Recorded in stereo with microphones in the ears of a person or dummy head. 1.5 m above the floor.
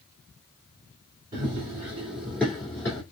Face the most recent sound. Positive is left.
turn(degrees=15)  # may be behind; listen again after turning